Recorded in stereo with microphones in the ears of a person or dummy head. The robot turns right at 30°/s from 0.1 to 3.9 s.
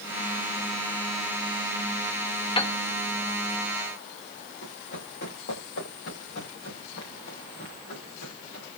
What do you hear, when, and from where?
2.6 s a piano: 30° left (ahead or behind), 1.1 m; by 2.7 s 25° left (ahead or behind), 1.1 m
4.6 s running footsteps: 60° left (ahead or behind), 9 m; by 8.7 s 55° left (ahead or behind), 7 m